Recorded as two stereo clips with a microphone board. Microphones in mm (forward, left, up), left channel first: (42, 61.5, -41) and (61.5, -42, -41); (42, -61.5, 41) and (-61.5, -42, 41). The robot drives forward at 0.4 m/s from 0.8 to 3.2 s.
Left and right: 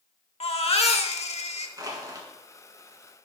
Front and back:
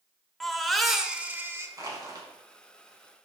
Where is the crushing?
130° right, 2.0 m; by 2.3 s 135° right, 2 m.